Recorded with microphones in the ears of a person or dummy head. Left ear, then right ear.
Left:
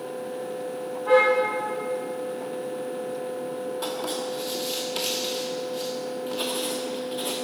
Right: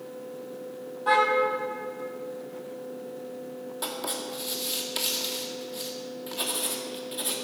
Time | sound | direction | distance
1.1 | a car horn | 55° right (ahead or behind) | 4 m
3.8 | writing | 10° right (ahead or behind) | 1.7 m